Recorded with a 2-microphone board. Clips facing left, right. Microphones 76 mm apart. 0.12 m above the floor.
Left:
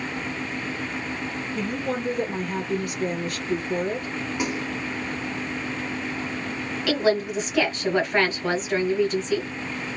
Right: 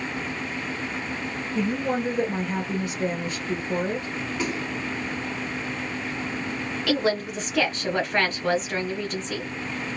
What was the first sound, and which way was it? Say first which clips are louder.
A woman speaking: right 3 dB; 25° right (ahead or behind).